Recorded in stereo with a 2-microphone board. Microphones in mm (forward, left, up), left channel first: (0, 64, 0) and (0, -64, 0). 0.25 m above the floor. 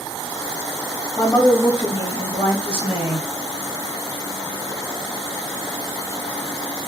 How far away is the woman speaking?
About 1.1 m.